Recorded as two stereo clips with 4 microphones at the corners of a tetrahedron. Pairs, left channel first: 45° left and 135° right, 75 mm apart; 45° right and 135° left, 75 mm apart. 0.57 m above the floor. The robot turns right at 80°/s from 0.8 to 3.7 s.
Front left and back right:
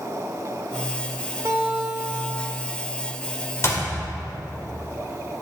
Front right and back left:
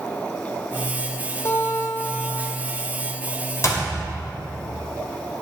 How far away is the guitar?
About 1.8 m.